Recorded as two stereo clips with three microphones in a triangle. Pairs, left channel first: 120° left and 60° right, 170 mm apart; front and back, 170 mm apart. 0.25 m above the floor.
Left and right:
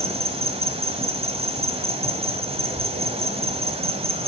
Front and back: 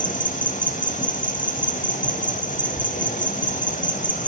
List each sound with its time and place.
0.0 s an insect: 15° right, 0.9 m